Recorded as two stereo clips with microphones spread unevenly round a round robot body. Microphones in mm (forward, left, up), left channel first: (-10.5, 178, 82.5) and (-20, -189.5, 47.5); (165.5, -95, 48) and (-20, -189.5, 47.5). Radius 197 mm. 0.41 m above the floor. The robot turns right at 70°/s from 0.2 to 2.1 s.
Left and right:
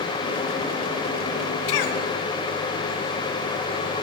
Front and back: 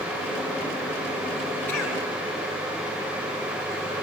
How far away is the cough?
About 5 m.